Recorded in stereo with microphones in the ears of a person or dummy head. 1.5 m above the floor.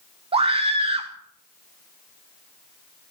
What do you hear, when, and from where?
0.3 s a scream: 25° right (ahead or behind), 1.5 m